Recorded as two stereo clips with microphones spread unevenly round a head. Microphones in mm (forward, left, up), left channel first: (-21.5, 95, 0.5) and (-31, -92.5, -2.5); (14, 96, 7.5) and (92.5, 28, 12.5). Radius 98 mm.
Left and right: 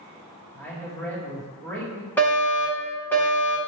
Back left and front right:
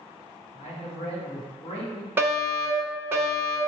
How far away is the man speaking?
About 1.4 m.